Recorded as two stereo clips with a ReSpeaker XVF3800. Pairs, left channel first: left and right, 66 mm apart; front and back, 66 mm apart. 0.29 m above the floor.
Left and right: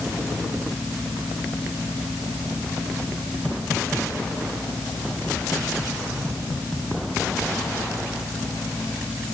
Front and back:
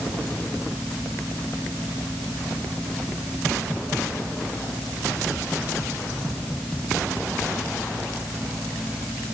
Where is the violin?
I don't hear a violin.